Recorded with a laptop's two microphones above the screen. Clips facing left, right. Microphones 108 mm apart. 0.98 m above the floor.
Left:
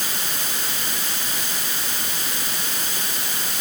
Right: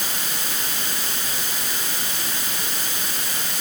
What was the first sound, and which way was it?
Only background noise.